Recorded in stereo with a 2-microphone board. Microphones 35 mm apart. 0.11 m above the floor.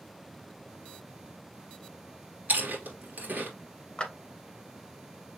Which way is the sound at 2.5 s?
60° right (ahead or behind).